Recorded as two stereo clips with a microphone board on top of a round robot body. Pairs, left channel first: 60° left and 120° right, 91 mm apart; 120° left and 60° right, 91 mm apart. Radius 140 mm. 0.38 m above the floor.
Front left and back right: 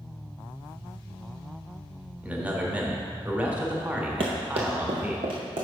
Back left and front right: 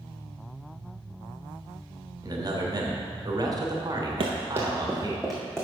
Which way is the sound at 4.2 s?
90° right.